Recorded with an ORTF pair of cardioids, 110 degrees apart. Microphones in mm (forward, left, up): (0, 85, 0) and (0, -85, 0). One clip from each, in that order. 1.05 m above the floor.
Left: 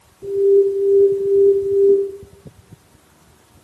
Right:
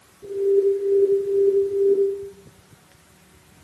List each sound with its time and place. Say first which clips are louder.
0.2 s an alarm: left 5 dB; 50° left, 7.5 m